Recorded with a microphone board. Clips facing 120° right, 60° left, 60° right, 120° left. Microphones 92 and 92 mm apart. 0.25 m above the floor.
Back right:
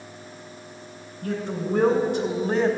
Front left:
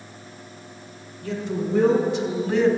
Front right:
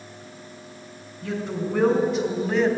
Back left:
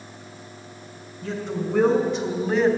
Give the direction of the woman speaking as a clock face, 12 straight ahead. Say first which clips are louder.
Front left 1 dB, even; 5 o'clock.